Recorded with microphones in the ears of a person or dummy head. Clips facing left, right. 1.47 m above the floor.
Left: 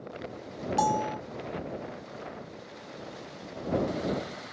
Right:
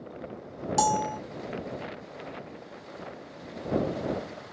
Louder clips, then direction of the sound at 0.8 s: Right 1 dB; 45° right (ahead or behind).